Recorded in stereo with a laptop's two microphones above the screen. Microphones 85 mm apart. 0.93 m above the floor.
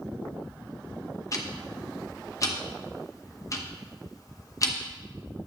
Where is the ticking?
40° left (ahead or behind), 0.9 m.